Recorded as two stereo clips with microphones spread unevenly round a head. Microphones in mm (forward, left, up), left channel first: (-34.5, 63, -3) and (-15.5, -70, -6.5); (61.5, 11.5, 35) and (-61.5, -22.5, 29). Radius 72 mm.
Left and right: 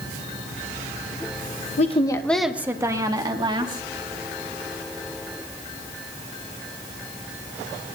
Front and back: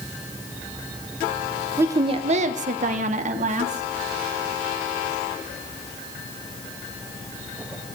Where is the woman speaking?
125° left, 1.0 m; by 3.8 s 135° right, 2.5 m.